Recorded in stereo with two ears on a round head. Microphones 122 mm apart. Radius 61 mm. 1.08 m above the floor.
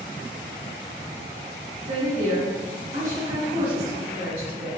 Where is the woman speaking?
50° right (ahead or behind), 2.0 m.